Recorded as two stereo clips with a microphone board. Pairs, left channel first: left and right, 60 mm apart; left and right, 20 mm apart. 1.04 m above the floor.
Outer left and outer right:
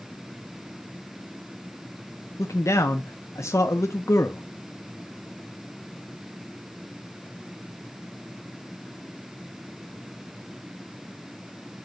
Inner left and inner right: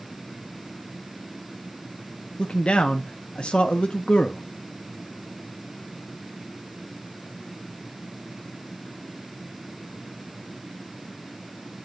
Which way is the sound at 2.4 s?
60° left (ahead or behind).